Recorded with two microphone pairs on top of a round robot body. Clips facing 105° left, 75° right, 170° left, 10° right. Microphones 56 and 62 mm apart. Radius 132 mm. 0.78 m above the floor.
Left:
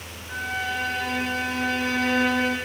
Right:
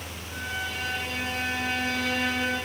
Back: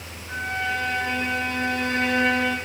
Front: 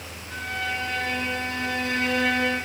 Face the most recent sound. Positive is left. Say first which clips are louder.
# left 5 dB, back 3 dB
turn(degrees=120)